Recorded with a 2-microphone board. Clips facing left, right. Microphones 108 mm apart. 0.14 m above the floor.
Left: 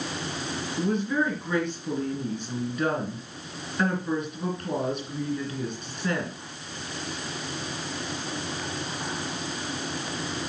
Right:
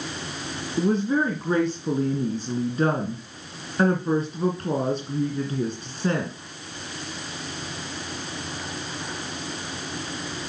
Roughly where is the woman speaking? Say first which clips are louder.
Right 4 dB; right.